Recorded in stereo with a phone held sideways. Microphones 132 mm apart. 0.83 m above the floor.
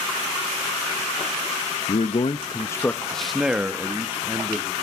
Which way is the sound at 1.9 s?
60° left (ahead or behind).